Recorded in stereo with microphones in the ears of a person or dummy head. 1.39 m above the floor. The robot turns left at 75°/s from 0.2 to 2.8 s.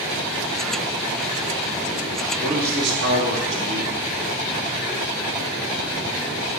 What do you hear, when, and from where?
2.4 s a man speaking: 40° right (ahead or behind), 2 m; by 4.0 s 65° right (ahead or behind), 2 m